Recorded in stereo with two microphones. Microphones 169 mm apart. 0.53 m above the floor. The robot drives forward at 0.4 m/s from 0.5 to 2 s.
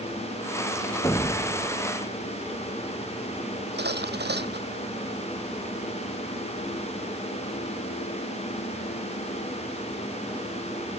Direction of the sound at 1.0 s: 20° left (ahead or behind).